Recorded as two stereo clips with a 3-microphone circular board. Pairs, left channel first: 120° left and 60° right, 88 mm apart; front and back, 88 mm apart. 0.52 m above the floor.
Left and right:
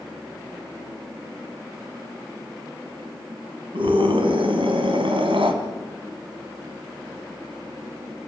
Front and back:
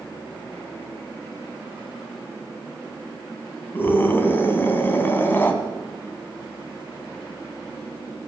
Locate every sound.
3.7 s a scream: 65° right, 3.5 m